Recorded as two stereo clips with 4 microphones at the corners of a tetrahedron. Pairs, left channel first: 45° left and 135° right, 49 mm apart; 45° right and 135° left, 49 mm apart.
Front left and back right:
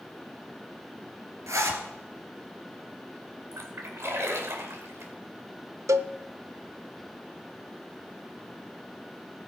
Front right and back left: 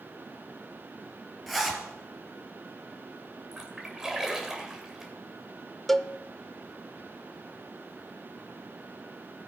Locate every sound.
1.5 s a zipper: 135° right, 2.5 m
3.5 s a splash: 145° right, 2 m
5.9 s a cowbell: 130° right, 0.5 m